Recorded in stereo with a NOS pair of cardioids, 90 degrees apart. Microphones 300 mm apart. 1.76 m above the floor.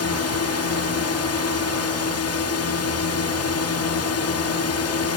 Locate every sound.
0.0 s a drone: 55° left